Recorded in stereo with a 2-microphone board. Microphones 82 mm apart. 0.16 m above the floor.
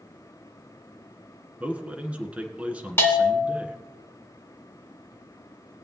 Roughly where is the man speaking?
Centre.